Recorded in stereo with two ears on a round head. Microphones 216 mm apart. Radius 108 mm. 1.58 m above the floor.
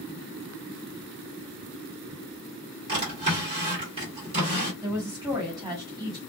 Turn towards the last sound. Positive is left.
turn(degrees=-10)  # may be behind; listen again after turning